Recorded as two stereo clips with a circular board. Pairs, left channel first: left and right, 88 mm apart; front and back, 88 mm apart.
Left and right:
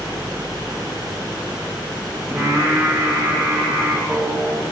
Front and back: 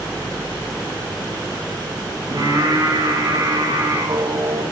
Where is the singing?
170° right, 8.5 m.